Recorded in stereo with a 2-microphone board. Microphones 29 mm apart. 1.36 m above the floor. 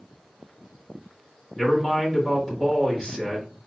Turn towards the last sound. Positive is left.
turn(degrees=10)  # may be behind; listen again after turning